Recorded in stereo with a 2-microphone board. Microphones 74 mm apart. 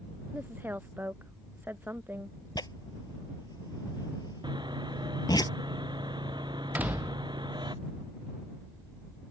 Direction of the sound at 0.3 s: 25° right (ahead or behind).